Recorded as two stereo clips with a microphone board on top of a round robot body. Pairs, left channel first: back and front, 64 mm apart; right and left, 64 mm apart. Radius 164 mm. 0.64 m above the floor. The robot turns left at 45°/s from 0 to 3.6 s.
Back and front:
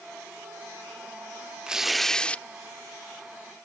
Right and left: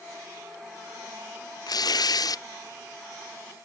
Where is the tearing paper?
75° right; by 2.4 s 110° right.